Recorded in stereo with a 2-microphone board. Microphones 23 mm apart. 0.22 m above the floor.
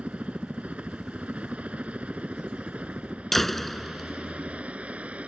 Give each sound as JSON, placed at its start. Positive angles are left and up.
{"t": 0.0, "sound": "a helicopter", "side_deg": -60}
{"t": 3.3, "sound": "a door slam", "side_deg": 10}